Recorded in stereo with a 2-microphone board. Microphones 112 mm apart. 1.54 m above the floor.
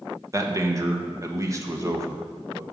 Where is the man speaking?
30° right (ahead or behind), 1.2 m.